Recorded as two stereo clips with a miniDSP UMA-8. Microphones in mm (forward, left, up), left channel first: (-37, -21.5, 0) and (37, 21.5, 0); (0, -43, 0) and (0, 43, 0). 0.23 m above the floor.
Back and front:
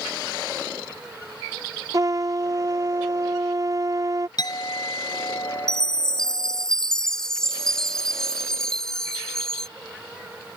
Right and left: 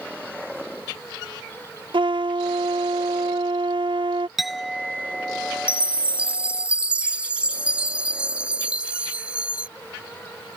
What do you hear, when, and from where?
1.9 s a trumpet: 75° left
4.4 s a clink: 175° left
5.7 s a chime: 140° left